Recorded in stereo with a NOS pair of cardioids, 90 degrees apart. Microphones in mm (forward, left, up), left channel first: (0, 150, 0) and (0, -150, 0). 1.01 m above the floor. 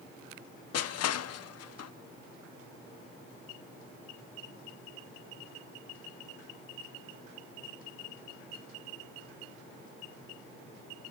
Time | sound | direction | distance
0.7 | crushing | 60° left | 0.9 m